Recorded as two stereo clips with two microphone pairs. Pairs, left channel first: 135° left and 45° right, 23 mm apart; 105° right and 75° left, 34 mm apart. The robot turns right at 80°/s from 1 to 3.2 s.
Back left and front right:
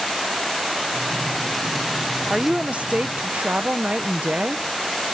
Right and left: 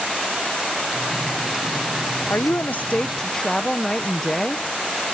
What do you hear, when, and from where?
2.3 s a woman speaking: 105° right; by 4.7 s 35° right